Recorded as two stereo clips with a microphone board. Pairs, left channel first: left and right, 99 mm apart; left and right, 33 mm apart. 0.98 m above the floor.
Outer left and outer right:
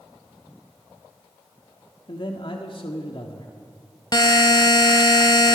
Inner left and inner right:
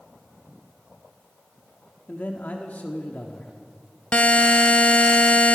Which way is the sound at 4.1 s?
45° left (ahead or behind).